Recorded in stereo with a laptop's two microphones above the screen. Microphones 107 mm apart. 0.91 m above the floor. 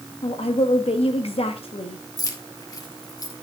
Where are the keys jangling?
35° left (ahead or behind), 1.5 m.